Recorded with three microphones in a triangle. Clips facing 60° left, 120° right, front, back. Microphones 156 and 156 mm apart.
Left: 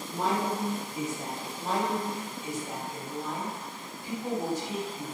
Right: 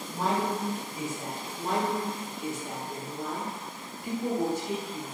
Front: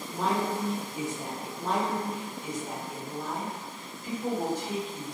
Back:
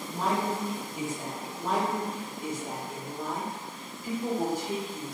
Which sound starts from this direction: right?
A woman speaking, at 1.6 s.